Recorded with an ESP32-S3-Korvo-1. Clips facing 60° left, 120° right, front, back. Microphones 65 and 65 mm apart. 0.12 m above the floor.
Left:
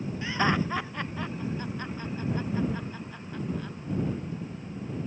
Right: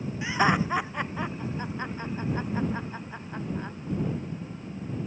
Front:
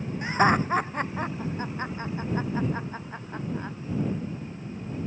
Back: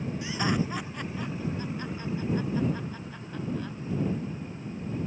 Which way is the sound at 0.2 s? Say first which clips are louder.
Right 3 dB, front 8 dB; 45° right.